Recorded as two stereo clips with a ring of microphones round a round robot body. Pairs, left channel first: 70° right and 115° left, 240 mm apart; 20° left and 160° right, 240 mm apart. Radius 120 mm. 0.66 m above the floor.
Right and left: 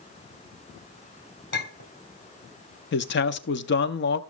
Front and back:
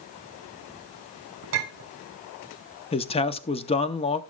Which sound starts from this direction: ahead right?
A man speaking, at 2.9 s.